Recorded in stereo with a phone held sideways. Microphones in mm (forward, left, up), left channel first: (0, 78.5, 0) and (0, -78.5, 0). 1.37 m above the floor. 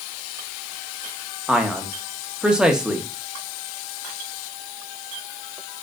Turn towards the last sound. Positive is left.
turn(degrees=-5)  # may be behind; listen again after turning